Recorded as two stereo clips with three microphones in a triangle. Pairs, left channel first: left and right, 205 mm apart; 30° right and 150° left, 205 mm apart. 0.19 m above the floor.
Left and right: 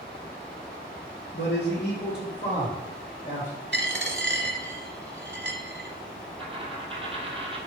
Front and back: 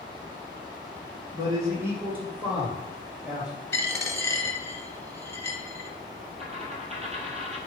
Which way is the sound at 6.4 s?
150° right.